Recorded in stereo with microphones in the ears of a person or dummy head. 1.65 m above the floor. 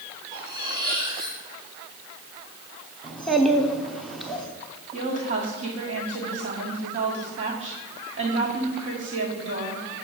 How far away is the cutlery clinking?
About 2.5 m.